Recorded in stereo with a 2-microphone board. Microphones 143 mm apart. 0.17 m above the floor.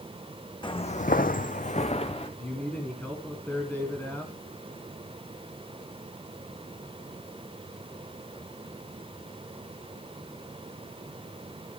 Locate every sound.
0.6 s footsteps: 35° left (ahead or behind), 0.8 m; by 2.3 s 40° left (ahead or behind), 1.4 m
2.4 s a man speaking: 15° left (ahead or behind), 1.8 m